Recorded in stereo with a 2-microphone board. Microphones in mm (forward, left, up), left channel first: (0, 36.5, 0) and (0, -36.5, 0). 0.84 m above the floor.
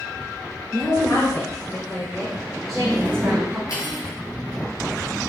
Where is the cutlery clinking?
50° left (ahead or behind), 4.5 m.